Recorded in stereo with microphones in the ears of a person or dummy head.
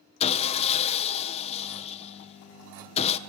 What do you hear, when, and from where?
0.2 s sawing: 35° left (ahead or behind), 0.7 m